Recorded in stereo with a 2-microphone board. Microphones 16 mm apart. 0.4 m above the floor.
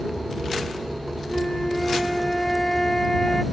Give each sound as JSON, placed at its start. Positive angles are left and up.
{"t": 1.3, "sound": "a flute", "side_deg": 30}